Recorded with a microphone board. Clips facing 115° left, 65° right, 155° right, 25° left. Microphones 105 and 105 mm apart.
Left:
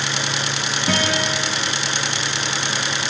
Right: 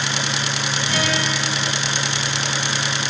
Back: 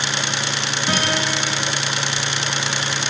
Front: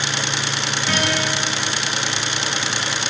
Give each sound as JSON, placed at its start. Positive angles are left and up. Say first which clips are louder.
{"t": 0.9, "sound": "a guitar", "louder": "left 3 dB, even", "azimuth_deg": 135, "distance_m": 10.0}